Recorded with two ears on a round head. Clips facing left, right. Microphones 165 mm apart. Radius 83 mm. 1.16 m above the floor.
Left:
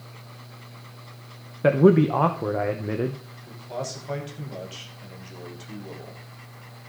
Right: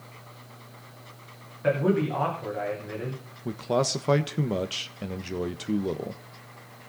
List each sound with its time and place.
1.6 s a man speaking: 65° left (ahead or behind), 1.1 m
3.5 s a man speaking: 75° right (ahead or behind), 1.1 m